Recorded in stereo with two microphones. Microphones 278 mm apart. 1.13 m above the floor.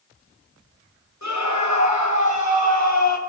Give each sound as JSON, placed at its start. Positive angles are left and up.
{"t": 1.2, "sound": "a scream", "side_deg": 85, "distance_m": 7.0}